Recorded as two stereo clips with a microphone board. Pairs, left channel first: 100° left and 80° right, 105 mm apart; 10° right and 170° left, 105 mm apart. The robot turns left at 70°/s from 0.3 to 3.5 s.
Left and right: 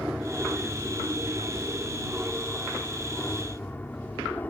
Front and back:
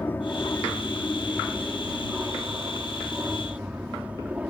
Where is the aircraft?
10° right; by 4.5 s 125° left.